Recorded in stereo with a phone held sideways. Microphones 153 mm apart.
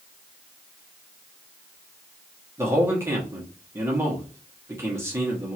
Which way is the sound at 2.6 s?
15° right (ahead or behind).